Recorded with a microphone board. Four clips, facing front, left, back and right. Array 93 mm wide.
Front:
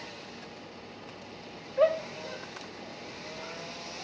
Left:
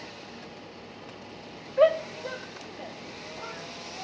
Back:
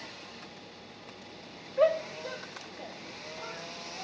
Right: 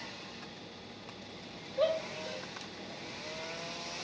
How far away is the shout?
About 0.6 m.